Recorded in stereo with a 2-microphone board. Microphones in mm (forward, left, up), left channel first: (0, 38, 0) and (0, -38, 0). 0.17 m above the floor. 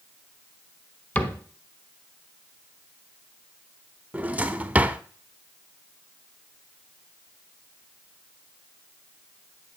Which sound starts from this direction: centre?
A drawer, at 4.1 s.